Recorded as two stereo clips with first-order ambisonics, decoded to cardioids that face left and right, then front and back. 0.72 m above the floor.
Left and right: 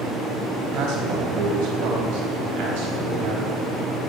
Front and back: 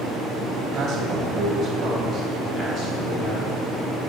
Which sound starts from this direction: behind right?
A man speaking, at 0.7 s.